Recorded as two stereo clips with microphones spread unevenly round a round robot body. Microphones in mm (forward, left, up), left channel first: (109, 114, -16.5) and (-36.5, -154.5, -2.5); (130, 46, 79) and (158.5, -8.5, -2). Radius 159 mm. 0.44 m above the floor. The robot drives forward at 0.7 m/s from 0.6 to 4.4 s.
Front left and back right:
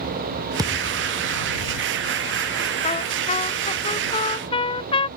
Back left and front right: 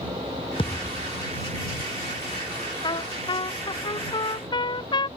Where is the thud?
160° left; by 1.2 s 165° left.